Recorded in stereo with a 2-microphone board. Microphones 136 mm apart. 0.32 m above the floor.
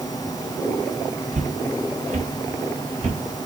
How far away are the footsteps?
About 4.5 m.